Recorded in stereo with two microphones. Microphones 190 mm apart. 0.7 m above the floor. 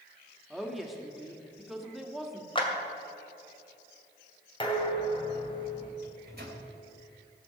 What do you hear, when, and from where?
0.5 s a woman speaking: centre (ahead or behind), 1.6 m
2.5 s a clap: 25° left (ahead or behind), 2 m
4.6 s dishes clattering: 25° left (ahead or behind), 2.5 m
6.0 s a microwave: 60° right (ahead or behind), 3.5 m